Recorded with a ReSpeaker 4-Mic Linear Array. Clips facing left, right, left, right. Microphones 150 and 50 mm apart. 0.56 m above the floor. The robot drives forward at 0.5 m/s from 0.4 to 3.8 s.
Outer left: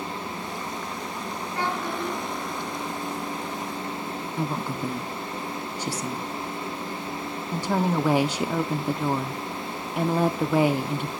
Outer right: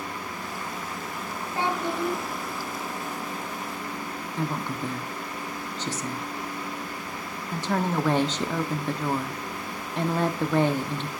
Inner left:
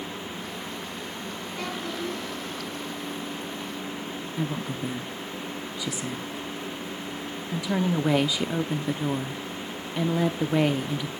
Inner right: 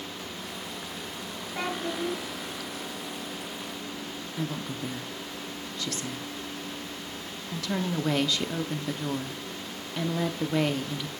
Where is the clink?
I don't hear a clink.